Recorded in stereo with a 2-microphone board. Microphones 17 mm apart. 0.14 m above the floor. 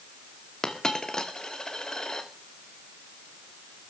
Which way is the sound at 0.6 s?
40° left (ahead or behind).